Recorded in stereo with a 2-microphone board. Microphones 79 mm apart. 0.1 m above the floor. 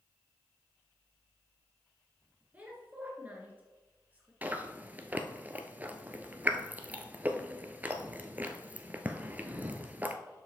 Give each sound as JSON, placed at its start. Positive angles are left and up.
{"t": 2.5, "sound": "a woman speaking", "side_deg": -20, "distance_m": 1.7}
{"t": 4.4, "sound": "chewing", "side_deg": -20, "distance_m": 0.6}